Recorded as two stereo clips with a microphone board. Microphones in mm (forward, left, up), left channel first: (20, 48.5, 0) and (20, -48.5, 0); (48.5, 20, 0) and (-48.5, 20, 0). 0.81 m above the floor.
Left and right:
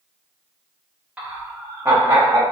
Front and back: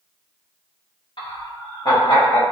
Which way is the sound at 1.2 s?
15° right.